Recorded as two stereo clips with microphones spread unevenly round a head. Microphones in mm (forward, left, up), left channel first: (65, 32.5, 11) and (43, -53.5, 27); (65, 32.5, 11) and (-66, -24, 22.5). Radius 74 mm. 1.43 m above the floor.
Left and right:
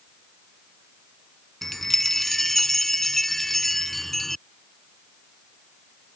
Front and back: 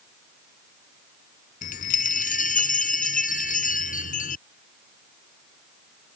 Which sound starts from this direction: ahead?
A chime, at 1.6 s.